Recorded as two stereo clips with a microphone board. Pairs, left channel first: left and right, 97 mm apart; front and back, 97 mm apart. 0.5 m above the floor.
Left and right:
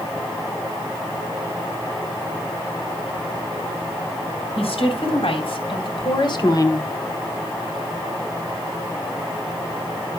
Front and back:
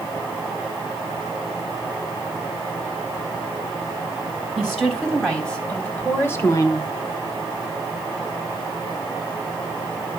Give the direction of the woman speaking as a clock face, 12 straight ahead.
9 o'clock.